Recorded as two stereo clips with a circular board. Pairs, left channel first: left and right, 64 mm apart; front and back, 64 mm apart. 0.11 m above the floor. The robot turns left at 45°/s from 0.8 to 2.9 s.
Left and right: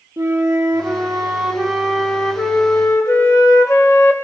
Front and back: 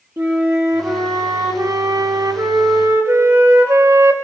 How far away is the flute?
About 4.5 m.